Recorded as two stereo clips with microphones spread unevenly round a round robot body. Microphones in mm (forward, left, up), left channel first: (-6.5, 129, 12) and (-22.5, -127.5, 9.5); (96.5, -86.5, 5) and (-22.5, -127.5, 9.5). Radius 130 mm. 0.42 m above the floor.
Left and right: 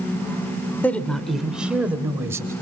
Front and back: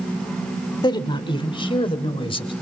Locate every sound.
0.8 s a woman speaking: 5° left, 1.5 m; by 2.5 s 15° right, 2.5 m